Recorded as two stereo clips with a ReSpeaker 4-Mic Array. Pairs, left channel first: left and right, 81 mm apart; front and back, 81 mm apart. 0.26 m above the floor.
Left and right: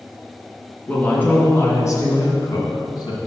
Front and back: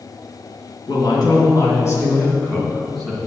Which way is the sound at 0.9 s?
20° left.